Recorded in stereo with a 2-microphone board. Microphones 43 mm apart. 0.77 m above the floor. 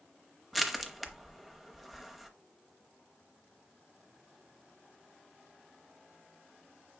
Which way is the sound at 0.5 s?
Centre (ahead or behind).